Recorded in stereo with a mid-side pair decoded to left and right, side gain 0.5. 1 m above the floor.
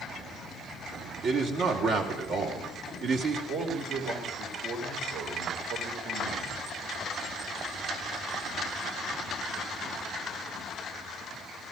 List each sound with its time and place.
1.2 s a man speaking: 70° right, 2.5 m
3.5 s a man speaking: 70° right, 3.5 m